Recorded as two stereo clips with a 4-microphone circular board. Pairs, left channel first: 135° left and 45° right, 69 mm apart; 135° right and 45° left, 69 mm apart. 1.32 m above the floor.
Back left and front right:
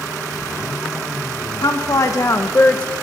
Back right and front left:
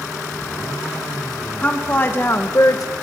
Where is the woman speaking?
155° left, 2.5 m; by 2.9 s 155° right, 1.3 m.